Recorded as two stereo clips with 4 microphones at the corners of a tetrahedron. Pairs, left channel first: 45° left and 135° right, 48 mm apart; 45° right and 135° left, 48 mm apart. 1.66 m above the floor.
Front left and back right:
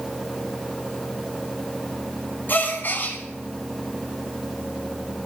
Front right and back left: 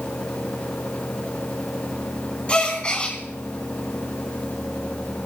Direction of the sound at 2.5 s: 15° left.